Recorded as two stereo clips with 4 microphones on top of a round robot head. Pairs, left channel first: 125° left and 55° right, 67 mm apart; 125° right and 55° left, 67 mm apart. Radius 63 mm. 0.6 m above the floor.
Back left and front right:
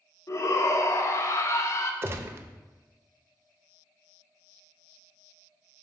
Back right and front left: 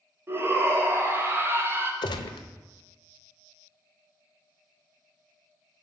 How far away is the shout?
About 1.6 m.